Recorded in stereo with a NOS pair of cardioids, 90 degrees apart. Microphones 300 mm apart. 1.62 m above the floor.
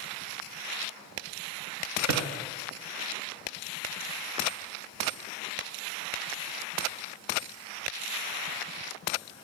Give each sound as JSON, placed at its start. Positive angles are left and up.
{"t": 2.1, "sound": "a drawer", "azimuth_deg": -65, "distance_m": 3.5}